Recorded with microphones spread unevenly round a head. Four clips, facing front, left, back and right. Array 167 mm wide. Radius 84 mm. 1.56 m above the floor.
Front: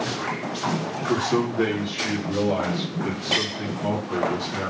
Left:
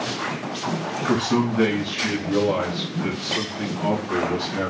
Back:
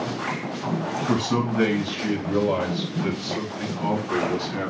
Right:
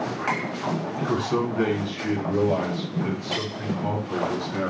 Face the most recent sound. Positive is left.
turn(degrees=105)